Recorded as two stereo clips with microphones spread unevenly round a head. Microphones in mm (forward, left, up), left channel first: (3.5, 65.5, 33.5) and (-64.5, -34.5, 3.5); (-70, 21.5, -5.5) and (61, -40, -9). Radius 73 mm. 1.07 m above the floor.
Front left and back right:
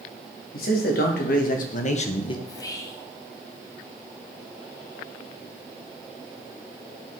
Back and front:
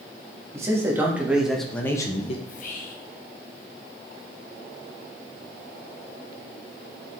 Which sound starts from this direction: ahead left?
A man speaking, at 0.5 s.